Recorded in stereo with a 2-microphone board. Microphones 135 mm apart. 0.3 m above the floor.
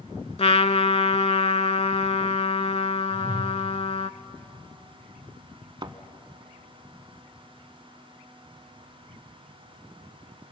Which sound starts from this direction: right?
A thud, at 5.8 s.